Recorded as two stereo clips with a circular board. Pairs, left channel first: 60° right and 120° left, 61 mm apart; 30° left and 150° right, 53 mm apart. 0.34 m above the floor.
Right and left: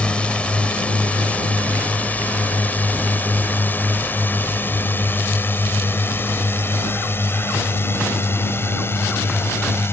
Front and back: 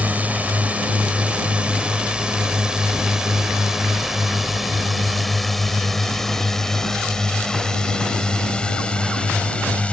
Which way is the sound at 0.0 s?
120° right.